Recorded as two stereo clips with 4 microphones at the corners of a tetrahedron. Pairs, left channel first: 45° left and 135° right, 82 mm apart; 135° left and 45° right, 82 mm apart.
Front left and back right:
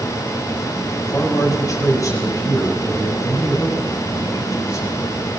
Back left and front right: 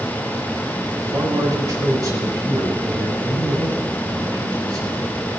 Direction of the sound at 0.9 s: 5° right.